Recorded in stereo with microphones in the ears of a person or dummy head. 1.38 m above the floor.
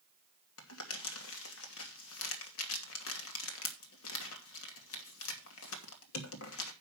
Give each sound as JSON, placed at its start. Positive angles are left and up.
{"t": 0.6, "sound": "crumpling", "side_deg": 75, "distance_m": 2.5}